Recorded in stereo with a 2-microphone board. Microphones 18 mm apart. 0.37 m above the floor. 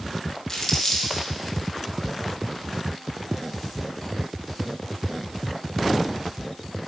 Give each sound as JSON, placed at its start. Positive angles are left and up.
{"t": 0.5, "sound": "crumpling", "side_deg": 20, "distance_m": 2.0}